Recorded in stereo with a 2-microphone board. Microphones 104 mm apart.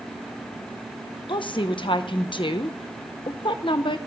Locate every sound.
1.3 s a woman speaking: 50° left (ahead or behind), 0.9 m